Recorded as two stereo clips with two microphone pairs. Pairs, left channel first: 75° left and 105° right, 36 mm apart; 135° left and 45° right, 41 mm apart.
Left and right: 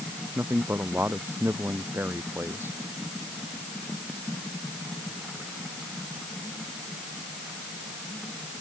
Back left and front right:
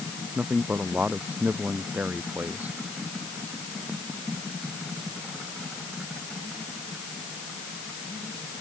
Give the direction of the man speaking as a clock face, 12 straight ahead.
3 o'clock.